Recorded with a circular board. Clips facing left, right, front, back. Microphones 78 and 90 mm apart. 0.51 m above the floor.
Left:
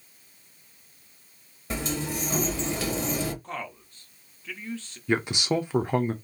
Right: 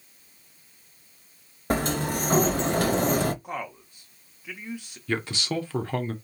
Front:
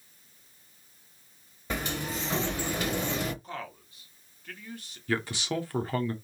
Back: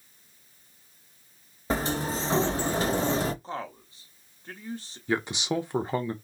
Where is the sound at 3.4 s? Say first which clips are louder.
Right 2 dB, back 4 dB; 155° right, 0.9 m.